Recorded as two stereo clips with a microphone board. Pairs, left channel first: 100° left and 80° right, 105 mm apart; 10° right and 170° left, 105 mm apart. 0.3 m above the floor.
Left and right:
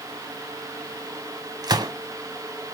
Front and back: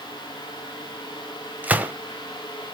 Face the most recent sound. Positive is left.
turn(degrees=-115)